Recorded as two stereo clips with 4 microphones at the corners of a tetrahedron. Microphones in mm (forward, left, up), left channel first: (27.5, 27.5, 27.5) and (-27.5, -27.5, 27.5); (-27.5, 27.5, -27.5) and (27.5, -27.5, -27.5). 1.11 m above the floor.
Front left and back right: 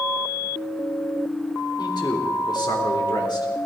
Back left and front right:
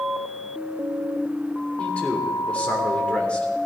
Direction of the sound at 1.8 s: 60° left.